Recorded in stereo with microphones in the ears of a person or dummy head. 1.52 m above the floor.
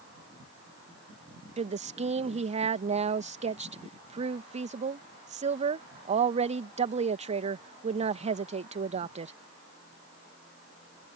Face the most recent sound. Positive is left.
turn(degrees=-35)  # may be behind; listen again after turning